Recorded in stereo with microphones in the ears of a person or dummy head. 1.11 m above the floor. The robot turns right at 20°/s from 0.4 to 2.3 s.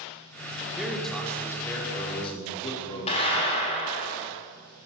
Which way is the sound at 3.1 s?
35° left (ahead or behind).